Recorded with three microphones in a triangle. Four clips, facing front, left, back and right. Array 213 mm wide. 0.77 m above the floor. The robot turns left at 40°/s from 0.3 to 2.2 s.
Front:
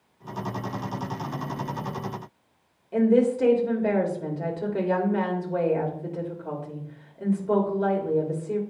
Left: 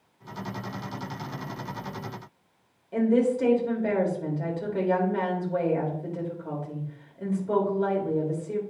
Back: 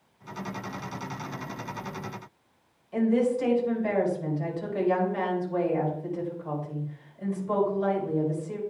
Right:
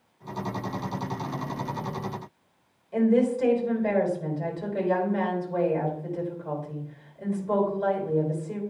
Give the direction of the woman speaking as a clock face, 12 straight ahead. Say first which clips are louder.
Right 1 dB, front 4 dB; 11 o'clock.